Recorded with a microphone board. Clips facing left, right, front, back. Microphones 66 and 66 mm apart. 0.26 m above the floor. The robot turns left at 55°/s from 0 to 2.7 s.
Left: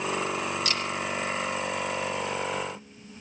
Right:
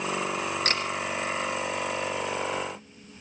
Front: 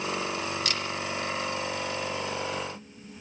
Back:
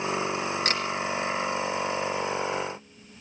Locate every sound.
0.7 s a camera shutter: 130° right, 4 m; by 0.8 s 140° right, 4 m